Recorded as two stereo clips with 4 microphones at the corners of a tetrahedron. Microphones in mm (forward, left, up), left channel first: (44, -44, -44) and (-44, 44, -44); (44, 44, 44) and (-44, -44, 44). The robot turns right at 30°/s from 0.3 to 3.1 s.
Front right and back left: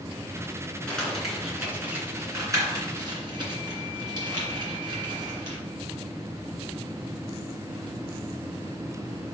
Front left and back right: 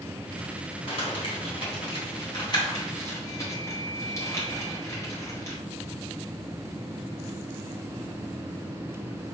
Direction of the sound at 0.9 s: 35° left.